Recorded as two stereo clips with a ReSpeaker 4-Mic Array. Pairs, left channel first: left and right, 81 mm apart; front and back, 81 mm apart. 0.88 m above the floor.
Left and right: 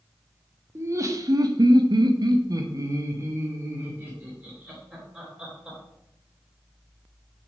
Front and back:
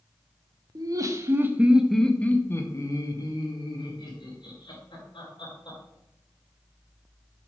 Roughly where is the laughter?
Behind right.